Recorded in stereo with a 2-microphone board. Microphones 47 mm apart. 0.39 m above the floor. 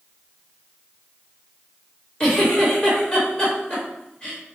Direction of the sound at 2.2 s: 20° left (ahead or behind).